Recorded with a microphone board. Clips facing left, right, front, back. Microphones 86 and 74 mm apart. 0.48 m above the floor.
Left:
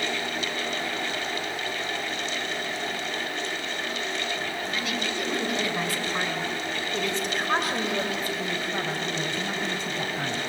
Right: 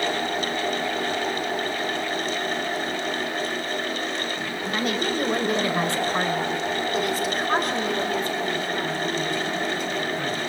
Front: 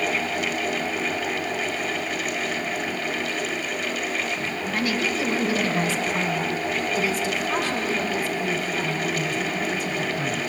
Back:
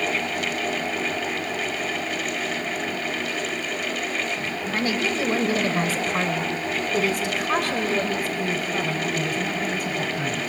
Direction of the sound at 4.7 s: 130° right.